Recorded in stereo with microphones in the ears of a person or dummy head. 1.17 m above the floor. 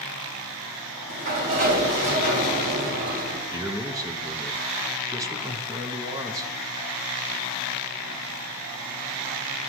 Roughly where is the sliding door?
Right.